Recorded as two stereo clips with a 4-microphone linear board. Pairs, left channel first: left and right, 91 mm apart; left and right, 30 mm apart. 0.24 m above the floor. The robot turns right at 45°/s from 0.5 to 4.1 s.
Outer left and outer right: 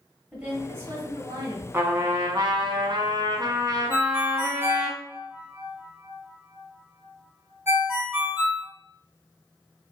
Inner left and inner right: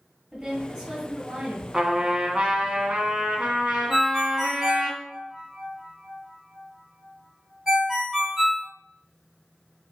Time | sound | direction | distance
0.3 | a woman speaking | 165° right | 1.3 m
1.7 | a trumpet | 150° right | 0.9 m
3.9 | a ringtone | 30° right (ahead or behind) | 1.6 m